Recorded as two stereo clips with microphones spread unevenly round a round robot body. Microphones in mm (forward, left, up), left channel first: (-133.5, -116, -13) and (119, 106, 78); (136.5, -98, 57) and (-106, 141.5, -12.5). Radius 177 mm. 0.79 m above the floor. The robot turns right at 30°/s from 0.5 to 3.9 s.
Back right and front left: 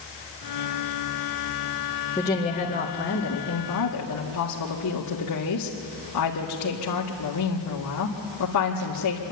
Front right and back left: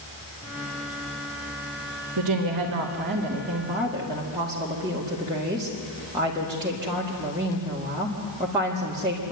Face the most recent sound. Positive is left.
turn(degrees=-155)